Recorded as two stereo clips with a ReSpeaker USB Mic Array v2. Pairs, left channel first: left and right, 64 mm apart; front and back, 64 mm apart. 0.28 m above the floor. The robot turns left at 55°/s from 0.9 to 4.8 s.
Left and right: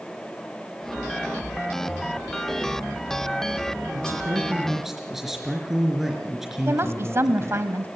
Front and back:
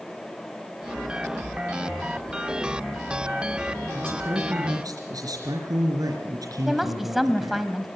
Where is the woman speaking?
95° right, 1.5 m.